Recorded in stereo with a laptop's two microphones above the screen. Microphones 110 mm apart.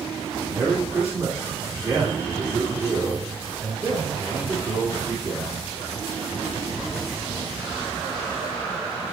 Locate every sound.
0.5 s a man speaking: 25° right (ahead or behind), 2 m